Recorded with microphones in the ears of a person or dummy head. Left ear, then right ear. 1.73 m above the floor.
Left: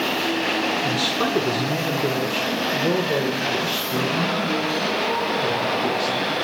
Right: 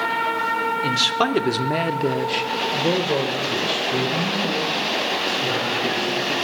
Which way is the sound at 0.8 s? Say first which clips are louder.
Right 2 dB; 20° right (ahead or behind).